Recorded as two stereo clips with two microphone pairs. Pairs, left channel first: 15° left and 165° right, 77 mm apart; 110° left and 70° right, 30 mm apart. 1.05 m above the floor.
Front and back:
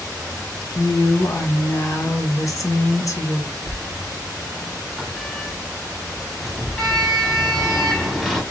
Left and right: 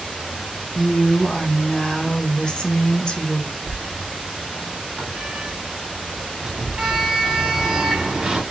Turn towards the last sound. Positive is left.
turn(degrees=-65)